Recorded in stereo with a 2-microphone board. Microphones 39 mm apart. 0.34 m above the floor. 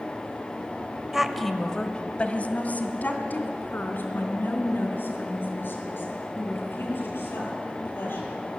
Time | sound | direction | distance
1.1 | a woman speaking | 10° right (ahead or behind) | 1.4 m